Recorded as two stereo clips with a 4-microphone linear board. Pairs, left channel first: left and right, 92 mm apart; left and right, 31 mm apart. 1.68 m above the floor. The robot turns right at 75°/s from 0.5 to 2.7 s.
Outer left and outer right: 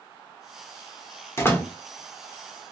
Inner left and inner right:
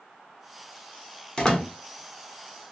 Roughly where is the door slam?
Left.